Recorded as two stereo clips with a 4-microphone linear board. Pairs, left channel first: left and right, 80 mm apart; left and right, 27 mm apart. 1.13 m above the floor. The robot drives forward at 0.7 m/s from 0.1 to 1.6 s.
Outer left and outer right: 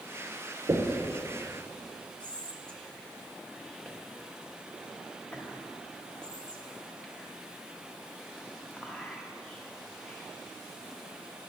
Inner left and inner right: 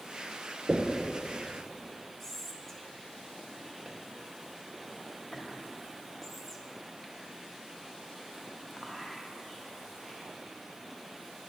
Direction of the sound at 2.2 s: 10° left (ahead or behind).